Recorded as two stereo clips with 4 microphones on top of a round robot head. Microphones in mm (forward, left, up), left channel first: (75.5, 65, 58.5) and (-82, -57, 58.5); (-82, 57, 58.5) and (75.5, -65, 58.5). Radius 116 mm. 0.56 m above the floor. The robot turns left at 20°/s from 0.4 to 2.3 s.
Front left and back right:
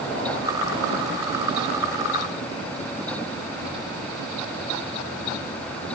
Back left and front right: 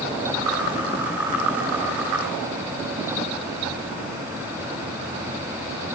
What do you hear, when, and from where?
Only background noise.